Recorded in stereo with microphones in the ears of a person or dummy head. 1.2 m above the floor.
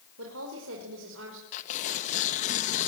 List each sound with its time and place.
0.2 s a woman speaking: 85° right, 5 m; by 1.4 s 75° right (ahead or behind), 5 m
1.5 s tearing paper: 40° left (ahead or behind), 1.8 m